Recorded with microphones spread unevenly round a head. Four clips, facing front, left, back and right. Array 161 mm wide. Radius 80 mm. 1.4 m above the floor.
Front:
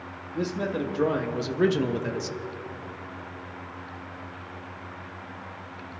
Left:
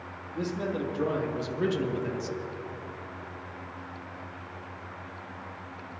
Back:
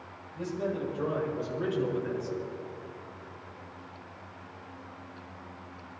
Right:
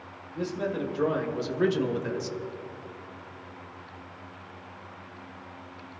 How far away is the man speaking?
About 2 m.